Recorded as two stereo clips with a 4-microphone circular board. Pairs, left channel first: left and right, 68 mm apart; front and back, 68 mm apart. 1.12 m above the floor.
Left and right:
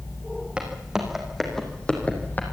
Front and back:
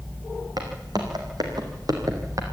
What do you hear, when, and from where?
0.6 s footsteps: 165° right, 4 m; by 2.4 s 150° left, 3.5 m